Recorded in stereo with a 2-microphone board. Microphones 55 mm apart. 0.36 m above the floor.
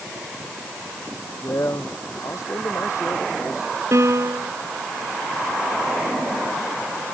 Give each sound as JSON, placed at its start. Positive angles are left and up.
{"t": 1.4, "sound": "a man speaking", "side_deg": 65}
{"t": 3.9, "sound": "a piano", "side_deg": -60}